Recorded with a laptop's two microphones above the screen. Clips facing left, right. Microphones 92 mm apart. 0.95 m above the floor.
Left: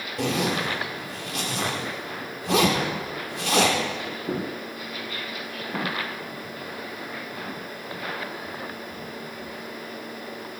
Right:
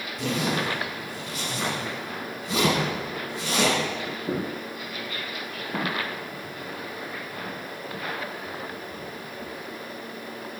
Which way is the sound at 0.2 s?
70° left (ahead or behind).